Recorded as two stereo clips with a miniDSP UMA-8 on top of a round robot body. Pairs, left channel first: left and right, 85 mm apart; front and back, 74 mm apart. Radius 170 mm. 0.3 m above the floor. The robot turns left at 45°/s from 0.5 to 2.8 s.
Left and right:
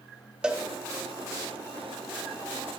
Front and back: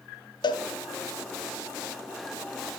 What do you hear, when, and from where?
0.4 s a cowbell: 10° right, 0.7 m; by 0.6 s 15° right, 0.7 m